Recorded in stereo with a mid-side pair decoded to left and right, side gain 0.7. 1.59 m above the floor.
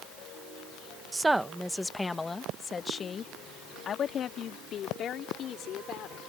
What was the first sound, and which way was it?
A woman speaking, 20° right.